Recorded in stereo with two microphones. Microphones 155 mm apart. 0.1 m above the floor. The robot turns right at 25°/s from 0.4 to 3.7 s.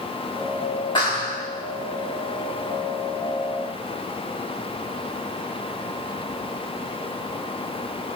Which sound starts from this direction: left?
A clap, at 0.9 s.